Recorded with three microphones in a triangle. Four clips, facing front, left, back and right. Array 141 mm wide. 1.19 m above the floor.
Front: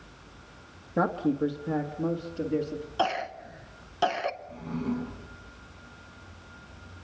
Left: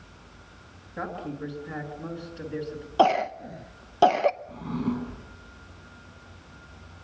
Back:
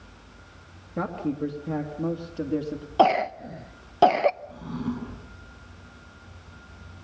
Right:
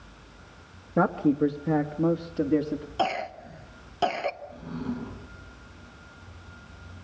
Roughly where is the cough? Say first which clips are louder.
Left 8 dB, back 9 dB; behind left.